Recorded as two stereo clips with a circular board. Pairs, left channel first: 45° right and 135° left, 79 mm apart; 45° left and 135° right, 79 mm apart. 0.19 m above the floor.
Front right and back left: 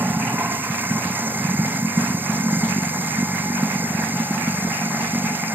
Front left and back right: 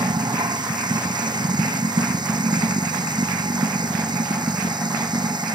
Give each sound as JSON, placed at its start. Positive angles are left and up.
{"t": 0.0, "sound": "running water", "azimuth_deg": -160}